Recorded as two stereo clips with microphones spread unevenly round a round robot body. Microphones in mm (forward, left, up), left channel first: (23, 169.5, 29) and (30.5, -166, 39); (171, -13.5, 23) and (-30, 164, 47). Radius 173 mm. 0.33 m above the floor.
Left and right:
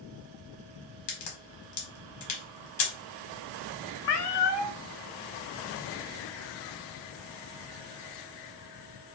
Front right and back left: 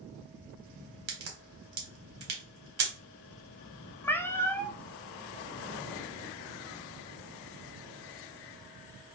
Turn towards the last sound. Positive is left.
turn(degrees=45)